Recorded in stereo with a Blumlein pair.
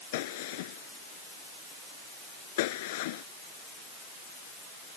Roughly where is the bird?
I don't hear a bird.